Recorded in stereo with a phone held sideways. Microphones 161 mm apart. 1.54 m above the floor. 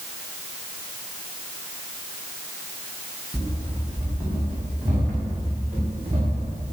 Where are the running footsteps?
5° right (ahead or behind), 6 m; by 6.7 s 20° right (ahead or behind), 6.5 m.